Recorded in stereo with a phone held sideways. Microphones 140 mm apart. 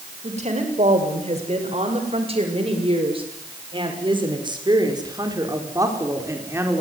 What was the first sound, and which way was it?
A woman speaking, 55° right (ahead or behind).